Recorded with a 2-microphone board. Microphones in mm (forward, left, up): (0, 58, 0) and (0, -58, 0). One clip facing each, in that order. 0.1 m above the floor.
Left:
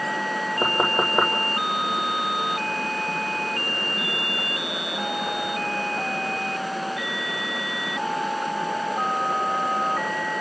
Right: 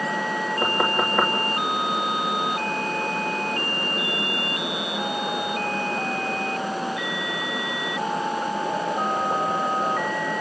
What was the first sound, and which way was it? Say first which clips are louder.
Knocking: left 1 dB; 25° left (ahead or behind).